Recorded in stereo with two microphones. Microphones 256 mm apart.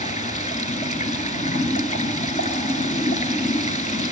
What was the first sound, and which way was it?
Running water, 30° left (ahead or behind).